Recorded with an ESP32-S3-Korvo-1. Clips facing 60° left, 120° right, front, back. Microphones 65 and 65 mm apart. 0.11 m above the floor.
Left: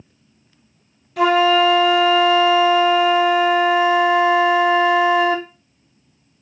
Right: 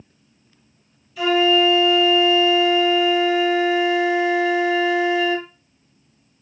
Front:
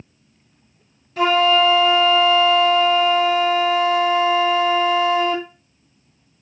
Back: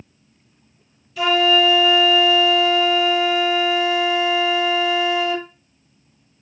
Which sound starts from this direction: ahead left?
A flute, at 1.2 s.